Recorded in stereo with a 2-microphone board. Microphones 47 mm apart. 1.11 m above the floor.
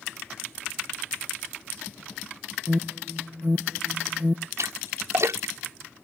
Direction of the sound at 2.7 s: 50° right (ahead or behind).